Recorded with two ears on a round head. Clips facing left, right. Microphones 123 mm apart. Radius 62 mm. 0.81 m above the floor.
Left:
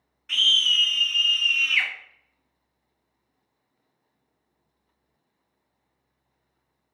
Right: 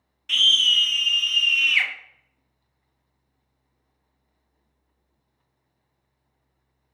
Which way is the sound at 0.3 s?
30° right (ahead or behind).